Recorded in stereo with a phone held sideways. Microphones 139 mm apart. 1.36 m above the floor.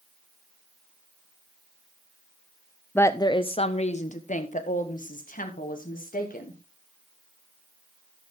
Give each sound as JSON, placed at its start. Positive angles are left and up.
{"t": 3.0, "sound": "a woman speaking", "side_deg": 15, "distance_m": 0.5}